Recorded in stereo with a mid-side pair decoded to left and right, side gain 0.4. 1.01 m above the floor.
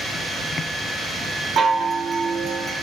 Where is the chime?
55° right, 0.6 m.